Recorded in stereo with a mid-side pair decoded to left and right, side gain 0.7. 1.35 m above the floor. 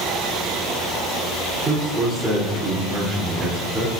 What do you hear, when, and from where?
1.6 s a man speaking: 15° right, 3.5 m